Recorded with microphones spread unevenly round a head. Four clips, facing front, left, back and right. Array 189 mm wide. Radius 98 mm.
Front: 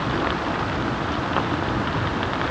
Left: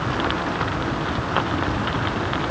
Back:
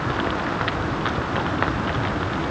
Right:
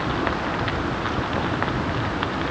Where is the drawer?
I don't hear a drawer.